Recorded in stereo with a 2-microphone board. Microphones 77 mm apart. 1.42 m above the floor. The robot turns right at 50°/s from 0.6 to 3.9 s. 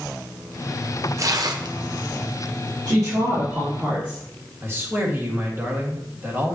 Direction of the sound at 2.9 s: 75° right.